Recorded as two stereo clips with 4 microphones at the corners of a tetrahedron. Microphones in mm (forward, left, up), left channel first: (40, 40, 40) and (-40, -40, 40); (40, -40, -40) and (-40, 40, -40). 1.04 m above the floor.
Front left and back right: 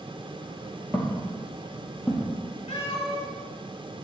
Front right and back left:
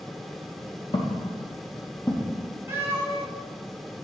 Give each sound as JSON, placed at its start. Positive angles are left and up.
{"t": 0.9, "sound": "footsteps", "azimuth_deg": -25, "distance_m": 1.5}
{"t": 2.7, "sound": "a cat meowing", "azimuth_deg": 65, "distance_m": 1.4}